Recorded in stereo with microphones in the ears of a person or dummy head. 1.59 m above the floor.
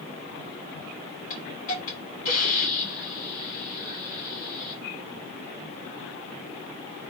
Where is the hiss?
45° left (ahead or behind), 1.8 m.